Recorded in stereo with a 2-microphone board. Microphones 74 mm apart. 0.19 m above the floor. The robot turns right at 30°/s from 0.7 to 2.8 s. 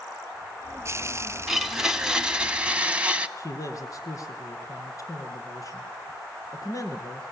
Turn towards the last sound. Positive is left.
turn(degrees=50)  # may be behind; listen again after turning